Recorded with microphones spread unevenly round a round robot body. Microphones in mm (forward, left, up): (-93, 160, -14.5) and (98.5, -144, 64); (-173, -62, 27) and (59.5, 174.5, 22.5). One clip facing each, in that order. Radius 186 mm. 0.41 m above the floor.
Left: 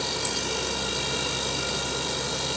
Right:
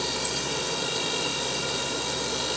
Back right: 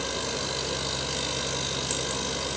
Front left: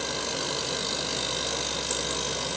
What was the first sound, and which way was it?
Only background noise.